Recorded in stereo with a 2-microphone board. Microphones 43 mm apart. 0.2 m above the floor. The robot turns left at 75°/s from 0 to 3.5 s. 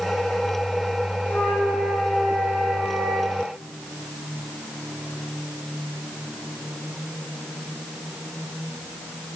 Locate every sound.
1.2 s a flute: 50° left, 4 m; by 3.4 s 105° right, 4 m